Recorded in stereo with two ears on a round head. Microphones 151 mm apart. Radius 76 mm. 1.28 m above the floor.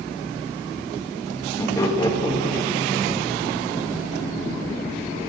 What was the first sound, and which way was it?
Laughter, 20° left (ahead or behind).